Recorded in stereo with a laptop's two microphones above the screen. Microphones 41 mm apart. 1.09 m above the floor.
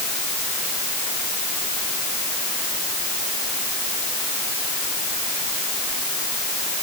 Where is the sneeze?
I don't hear a sneeze.